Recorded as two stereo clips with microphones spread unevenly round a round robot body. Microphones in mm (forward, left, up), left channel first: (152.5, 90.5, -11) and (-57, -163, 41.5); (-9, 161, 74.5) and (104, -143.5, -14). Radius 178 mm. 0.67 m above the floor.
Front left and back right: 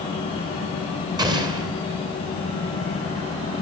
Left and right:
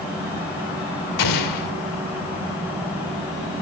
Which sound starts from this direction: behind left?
An explosion, at 1.2 s.